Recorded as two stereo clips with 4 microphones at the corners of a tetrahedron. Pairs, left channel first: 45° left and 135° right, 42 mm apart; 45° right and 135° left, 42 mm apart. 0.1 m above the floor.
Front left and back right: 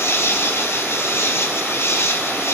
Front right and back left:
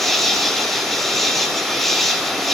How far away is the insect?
About 4.5 m.